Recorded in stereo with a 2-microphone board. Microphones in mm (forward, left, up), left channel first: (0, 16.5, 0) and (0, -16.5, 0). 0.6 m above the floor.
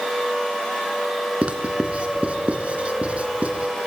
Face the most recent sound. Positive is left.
turn(degrees=-35)  # may be behind; listen again after turning